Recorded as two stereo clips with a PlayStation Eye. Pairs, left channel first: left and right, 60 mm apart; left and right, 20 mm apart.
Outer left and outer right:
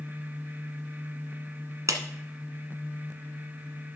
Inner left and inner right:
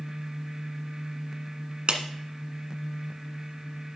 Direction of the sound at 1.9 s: 60° right (ahead or behind).